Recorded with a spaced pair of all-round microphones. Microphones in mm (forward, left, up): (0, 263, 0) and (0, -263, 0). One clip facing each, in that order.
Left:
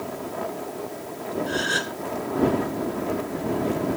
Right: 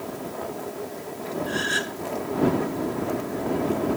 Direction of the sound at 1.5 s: 70° left (ahead or behind).